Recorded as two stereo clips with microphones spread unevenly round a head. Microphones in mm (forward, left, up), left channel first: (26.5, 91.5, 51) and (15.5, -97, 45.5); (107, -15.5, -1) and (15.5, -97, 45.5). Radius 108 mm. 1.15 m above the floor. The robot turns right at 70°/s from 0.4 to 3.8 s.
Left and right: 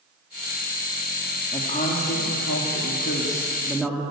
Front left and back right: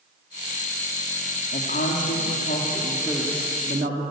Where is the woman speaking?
15° left, 2.5 m; by 4.0 s 175° left, 2.5 m.